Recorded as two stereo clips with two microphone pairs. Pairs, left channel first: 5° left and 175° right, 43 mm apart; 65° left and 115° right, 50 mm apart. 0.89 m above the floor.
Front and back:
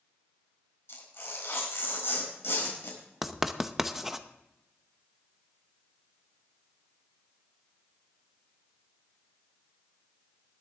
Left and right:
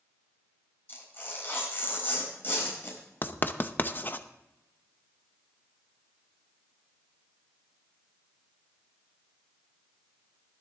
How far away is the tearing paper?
About 4.5 m.